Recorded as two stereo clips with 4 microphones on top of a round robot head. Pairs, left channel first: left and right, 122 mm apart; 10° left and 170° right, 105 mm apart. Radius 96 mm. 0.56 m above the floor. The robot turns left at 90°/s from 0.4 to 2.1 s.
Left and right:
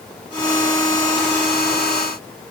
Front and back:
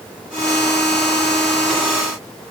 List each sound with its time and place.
Only background noise.